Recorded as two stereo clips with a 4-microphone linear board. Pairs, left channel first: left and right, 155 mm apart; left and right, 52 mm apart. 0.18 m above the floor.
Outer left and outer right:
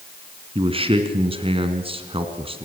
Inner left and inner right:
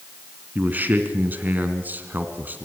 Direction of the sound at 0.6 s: 35° right (ahead or behind).